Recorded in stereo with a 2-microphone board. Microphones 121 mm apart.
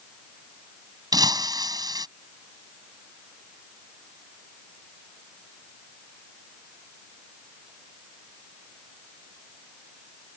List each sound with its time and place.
1.1 s breaking glass: 35° right (ahead or behind)